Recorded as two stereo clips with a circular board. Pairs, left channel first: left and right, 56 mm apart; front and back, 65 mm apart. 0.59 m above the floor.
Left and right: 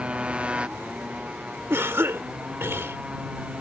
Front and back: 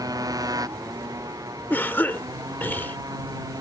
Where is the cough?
55° right.